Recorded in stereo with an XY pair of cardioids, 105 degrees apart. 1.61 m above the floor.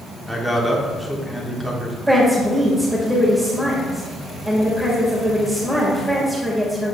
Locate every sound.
0.3 s a man speaking: 10° right, 1.5 m
2.1 s a woman speaking: 10° right, 1.9 m